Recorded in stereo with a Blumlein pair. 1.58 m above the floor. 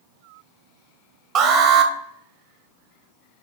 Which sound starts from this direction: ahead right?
An alarm, at 1.4 s.